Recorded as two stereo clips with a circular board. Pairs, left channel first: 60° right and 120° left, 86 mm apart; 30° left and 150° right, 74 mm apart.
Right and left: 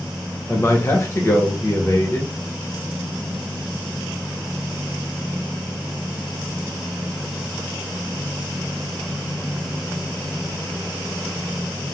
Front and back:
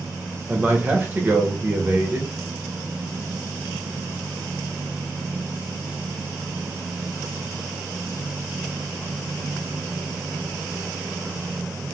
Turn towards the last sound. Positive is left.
turn(degrees=-100)